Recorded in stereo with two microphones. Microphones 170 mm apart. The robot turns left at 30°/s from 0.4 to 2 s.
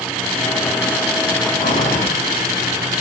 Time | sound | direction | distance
1.6 | breathing | 55° left (ahead or behind) | 5.5 m